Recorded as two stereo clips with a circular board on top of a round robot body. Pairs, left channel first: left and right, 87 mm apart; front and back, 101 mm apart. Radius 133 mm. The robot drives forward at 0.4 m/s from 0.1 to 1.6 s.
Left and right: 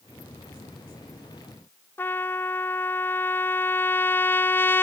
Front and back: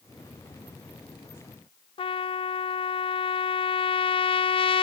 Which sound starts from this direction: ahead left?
A trumpet, at 2.0 s.